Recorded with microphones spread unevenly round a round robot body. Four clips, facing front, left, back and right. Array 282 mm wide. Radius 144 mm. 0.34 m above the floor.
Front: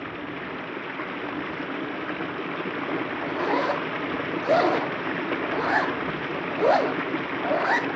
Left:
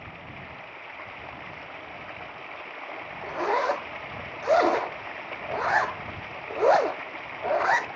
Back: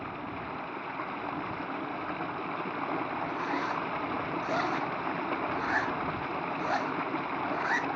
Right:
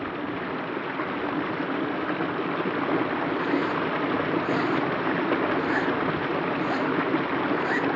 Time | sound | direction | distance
0.0 | running water | 70° right | ?
3.2 | a zipper | 45° left | ?